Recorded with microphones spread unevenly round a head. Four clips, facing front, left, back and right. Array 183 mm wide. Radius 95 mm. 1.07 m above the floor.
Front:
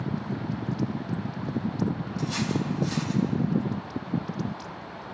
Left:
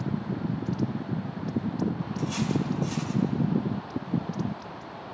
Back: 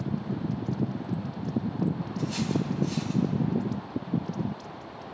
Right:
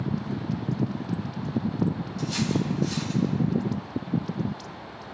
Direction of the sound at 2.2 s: 30° left.